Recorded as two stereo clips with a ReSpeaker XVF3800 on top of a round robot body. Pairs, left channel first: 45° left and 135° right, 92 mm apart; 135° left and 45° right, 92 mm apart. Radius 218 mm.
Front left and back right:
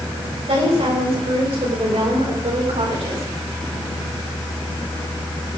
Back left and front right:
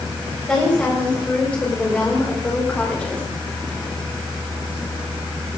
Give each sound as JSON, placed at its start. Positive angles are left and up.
{"t": 0.5, "sound": "a woman speaking", "azimuth_deg": -145, "distance_m": 6.0}